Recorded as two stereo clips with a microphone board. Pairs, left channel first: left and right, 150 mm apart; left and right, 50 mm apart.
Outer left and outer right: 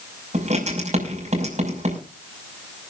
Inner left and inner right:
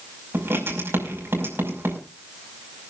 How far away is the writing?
About 5.5 m.